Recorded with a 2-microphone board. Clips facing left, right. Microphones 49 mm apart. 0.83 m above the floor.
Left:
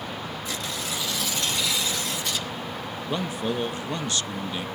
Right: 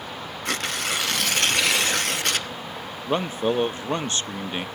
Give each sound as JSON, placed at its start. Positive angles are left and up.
{"t": 0.5, "sound": "tearing paper", "side_deg": -65, "distance_m": 0.8}
{"t": 3.1, "sound": "a man speaking", "side_deg": -35, "distance_m": 0.5}